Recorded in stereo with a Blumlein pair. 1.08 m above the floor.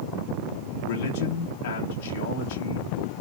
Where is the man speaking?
50° left, 1.7 m.